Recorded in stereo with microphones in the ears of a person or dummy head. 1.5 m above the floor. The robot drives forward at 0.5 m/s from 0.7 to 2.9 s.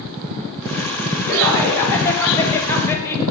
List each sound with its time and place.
1.3 s laughter: 10° left (ahead or behind), 4 m; by 3.2 s 15° left (ahead or behind), 3 m